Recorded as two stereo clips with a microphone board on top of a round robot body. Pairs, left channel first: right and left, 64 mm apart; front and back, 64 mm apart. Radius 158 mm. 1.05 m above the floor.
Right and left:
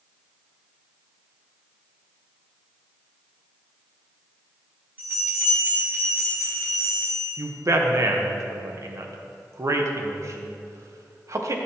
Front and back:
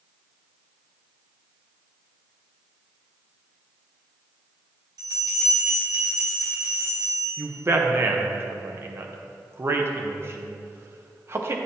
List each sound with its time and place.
5.0 s a bell: 155° left, 1.9 m
7.4 s a man speaking: 130° left, 1.0 m